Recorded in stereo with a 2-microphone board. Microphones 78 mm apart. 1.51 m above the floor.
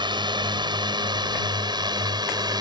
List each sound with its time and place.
0.0 s a drone: 75° right (ahead or behind); by 2.6 s 60° right (ahead or behind)